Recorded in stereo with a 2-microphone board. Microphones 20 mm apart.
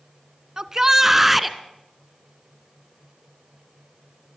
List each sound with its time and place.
0.6 s a shout: 30° right (ahead or behind), 1.1 m; by 1.6 s centre (ahead or behind), 1.3 m